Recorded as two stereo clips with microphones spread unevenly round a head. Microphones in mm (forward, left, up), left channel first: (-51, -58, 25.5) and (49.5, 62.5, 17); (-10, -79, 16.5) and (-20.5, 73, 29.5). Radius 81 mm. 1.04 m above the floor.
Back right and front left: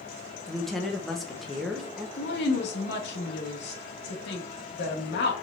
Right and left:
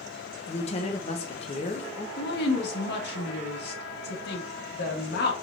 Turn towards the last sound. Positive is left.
turn(degrees=-100)